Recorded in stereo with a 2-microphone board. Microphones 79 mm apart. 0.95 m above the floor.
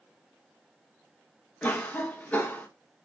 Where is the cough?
20° left (ahead or behind), 0.8 m.